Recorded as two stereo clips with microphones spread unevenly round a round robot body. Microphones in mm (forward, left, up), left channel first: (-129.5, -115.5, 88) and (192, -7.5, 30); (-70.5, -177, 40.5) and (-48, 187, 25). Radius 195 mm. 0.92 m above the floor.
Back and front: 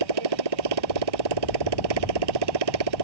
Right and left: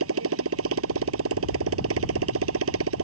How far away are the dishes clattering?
I don't hear dishes clattering.